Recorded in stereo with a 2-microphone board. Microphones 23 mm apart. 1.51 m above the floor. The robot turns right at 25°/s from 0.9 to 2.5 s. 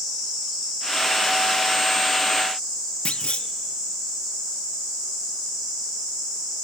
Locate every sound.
3.0 s a clunk: 55° left (ahead or behind), 0.6 m